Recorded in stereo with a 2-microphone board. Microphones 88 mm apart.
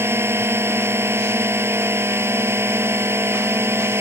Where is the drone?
30° right (ahead or behind).